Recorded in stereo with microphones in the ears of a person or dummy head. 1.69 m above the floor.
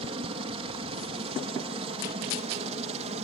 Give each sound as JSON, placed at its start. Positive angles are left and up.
{"t": 0.0, "sound": "a helicopter", "side_deg": -30}